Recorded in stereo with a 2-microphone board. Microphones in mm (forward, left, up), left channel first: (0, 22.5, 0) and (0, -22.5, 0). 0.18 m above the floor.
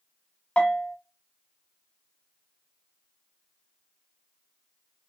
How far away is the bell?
About 0.6 m.